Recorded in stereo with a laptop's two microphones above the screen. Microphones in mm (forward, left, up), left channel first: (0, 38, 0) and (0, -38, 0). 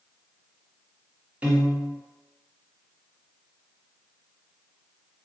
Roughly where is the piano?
Centre.